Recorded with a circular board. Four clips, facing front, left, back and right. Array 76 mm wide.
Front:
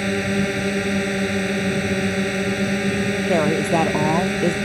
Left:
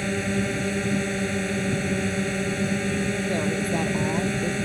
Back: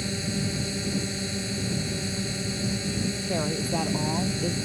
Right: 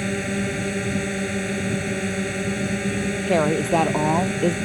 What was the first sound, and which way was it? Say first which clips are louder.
A drone: right 1 dB, front 9 dB; 10° right.